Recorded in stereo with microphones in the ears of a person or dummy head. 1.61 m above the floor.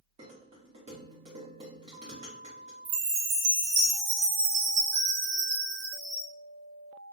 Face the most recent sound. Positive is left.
turn(degrees=-40)  # may be behind; listen again after turning